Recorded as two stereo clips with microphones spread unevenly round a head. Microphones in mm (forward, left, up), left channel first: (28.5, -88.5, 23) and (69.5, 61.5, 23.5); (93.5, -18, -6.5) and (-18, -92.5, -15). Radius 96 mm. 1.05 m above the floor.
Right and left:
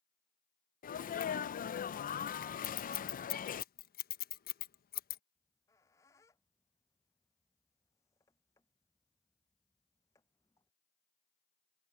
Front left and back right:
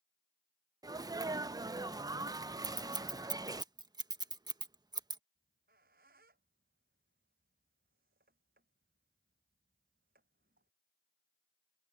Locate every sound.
0.8 s a sneeze: 90° right
2.6 s scissors: 90° right
5.3 s a squeak: straight behind